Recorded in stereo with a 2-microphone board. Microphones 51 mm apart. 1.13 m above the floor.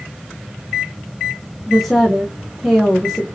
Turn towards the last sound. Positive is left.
turn(degrees=-5)  # may be behind; listen again after turning